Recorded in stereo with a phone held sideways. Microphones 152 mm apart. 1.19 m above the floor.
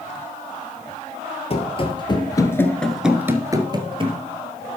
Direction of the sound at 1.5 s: 40° left (ahead or behind).